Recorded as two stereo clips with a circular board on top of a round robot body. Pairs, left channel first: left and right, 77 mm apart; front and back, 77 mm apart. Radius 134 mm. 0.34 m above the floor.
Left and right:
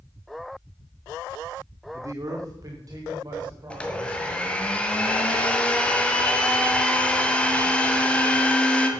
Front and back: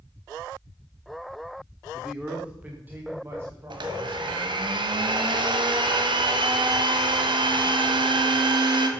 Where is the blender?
165° left, 1.4 m.